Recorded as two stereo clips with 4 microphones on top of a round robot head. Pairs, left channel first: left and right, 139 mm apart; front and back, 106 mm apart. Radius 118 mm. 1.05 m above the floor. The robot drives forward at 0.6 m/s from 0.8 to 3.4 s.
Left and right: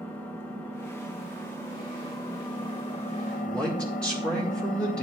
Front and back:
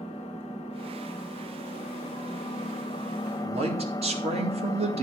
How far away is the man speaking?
About 1.9 m.